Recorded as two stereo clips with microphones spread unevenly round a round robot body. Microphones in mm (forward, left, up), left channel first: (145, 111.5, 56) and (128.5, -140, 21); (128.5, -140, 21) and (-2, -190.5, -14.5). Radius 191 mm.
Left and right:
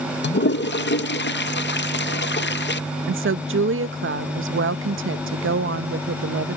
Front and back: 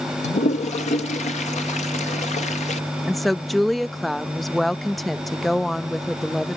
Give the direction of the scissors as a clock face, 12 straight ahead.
I don't hear scissors.